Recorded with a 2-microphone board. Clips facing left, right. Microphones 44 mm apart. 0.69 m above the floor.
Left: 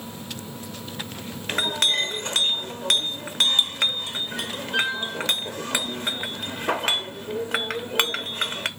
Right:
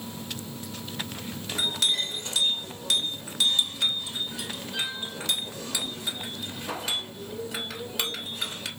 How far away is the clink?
About 0.8 m.